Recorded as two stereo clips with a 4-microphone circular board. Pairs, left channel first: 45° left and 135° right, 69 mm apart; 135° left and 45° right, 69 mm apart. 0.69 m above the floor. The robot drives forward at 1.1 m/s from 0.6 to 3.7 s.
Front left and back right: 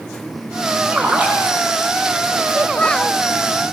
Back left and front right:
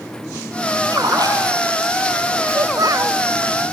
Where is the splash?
70° right, 10 m; by 1.9 s 75° right, 9.5 m.